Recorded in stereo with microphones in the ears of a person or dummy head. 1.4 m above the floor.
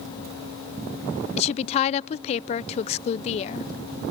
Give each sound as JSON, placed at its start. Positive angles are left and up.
{"t": 1.4, "sound": "a woman speaking", "side_deg": 45, "distance_m": 0.5}